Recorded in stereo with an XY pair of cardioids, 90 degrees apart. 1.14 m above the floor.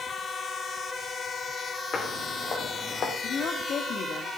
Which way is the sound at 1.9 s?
55° left.